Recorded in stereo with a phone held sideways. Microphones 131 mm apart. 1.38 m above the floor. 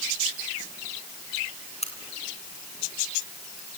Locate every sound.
1.8 s a crack: 50° left (ahead or behind), 2.5 m